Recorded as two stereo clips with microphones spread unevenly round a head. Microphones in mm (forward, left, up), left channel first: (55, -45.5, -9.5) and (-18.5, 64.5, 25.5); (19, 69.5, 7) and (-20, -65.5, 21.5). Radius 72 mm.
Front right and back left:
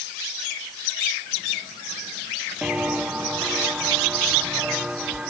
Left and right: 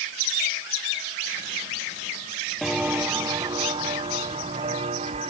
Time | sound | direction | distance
2.6 | footsteps | 175° left | ?